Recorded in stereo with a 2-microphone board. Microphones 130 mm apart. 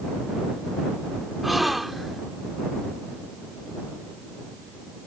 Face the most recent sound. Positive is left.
turn(degrees=0)  # may be behind; listen again after turning